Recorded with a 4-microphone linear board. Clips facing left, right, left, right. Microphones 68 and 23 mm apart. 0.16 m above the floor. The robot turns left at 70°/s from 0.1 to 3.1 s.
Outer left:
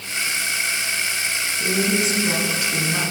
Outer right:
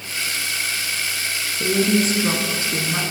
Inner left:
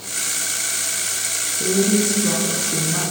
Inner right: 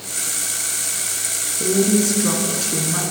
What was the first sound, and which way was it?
A woman speaking, 60° right.